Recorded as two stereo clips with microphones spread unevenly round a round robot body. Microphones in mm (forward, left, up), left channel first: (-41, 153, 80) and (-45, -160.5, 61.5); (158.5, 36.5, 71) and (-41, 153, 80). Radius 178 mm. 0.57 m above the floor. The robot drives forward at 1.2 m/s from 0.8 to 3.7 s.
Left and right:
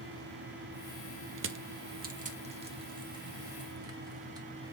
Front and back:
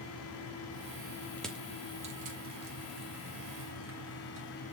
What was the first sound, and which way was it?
Crushing, 110° right.